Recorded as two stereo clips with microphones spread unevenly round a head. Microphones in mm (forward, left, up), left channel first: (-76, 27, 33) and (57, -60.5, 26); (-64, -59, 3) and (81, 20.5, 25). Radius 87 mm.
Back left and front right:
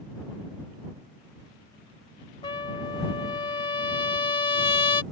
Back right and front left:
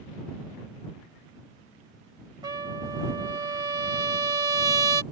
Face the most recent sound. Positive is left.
turn(degrees=90)